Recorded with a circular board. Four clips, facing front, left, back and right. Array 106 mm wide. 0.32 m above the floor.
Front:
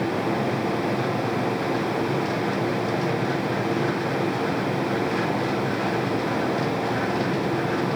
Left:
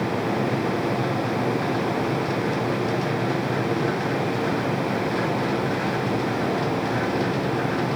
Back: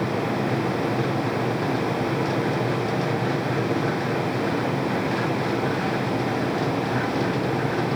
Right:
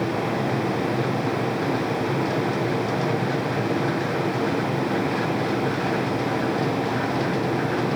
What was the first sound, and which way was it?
Only background noise.